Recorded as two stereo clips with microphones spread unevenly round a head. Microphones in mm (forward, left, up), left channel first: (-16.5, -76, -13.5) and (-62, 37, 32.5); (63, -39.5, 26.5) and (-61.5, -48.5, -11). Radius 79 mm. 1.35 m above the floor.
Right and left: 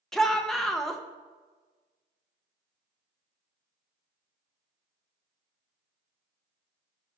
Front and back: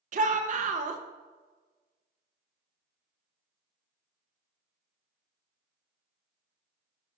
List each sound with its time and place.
0.1 s a shout: 155° right, 1.1 m